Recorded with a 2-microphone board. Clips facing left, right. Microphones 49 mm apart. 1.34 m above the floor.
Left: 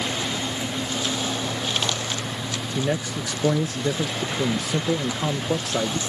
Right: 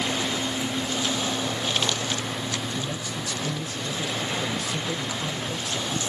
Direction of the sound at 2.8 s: 75° left (ahead or behind).